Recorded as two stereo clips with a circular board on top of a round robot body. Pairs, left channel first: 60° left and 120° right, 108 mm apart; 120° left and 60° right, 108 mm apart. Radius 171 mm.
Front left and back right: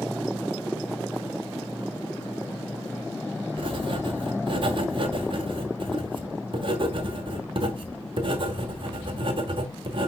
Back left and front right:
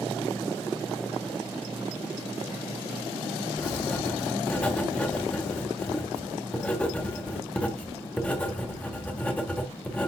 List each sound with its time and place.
3.6 s writing: 165° right, 1.2 m